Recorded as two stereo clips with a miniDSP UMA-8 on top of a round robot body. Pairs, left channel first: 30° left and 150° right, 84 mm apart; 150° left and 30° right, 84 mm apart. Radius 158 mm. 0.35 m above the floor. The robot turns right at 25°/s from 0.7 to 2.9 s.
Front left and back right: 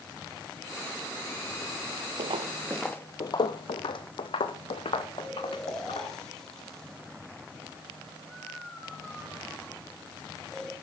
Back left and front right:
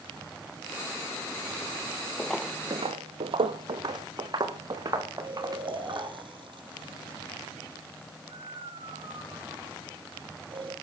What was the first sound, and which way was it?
Footsteps, 135° right.